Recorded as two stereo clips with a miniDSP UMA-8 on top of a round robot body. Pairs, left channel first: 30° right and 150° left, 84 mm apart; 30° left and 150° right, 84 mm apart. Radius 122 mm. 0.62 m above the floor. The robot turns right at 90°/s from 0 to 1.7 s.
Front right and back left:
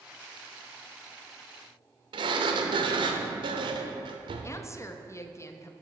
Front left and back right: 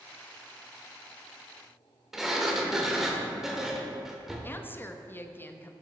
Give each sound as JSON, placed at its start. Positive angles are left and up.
{"t": 2.1, "sound": "a sliding door", "azimuth_deg": 125, "distance_m": 0.7}
{"t": 4.4, "sound": "a woman speaking", "azimuth_deg": -15, "distance_m": 0.8}